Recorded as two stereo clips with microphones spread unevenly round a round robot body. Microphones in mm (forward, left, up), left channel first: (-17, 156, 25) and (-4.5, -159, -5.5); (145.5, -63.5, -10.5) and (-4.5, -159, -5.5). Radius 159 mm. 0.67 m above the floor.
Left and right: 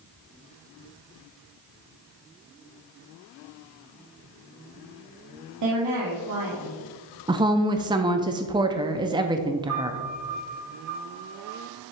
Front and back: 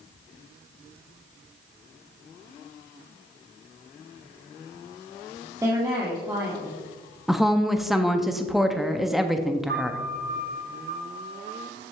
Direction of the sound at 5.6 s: 80° right.